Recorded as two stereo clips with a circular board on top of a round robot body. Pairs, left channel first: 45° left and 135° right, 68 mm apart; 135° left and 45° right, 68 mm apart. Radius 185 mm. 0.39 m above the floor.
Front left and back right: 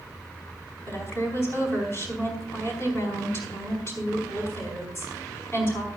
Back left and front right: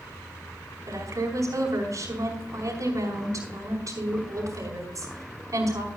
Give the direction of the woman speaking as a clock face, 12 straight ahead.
12 o'clock.